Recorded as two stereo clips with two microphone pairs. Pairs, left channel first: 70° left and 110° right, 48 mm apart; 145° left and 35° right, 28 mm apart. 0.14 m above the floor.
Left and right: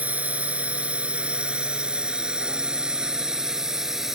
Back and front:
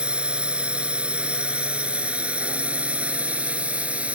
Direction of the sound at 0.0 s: 60° right.